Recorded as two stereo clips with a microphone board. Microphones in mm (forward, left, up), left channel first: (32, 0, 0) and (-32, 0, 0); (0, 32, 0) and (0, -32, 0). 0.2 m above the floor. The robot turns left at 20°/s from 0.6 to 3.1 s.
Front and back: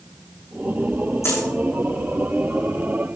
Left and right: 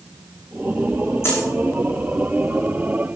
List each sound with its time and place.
1.2 s a dropped coin: 45° left, 6 m; by 1.4 s 40° left, 6 m